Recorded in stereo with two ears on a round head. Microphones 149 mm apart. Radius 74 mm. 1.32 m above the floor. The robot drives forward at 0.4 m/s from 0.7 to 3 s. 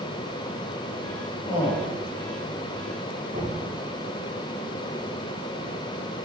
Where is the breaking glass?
No breaking glass in this recording.